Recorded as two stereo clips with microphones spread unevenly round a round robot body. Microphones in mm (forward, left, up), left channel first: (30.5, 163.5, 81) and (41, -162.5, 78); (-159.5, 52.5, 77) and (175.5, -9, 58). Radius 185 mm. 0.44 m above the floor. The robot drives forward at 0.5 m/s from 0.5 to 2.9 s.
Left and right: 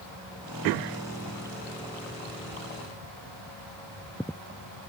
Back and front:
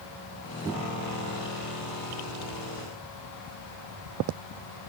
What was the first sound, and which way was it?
Only background noise.